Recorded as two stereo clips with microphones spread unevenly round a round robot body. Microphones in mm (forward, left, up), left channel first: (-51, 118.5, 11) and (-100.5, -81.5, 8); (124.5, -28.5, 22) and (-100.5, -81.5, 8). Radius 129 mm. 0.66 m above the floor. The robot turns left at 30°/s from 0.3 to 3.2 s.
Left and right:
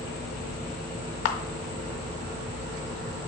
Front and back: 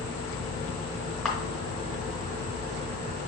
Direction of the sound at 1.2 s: 100° left.